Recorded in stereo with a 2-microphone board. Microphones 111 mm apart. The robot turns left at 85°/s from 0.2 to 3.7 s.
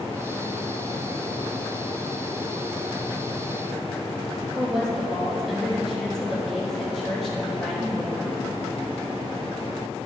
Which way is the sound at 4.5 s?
5° left (ahead or behind).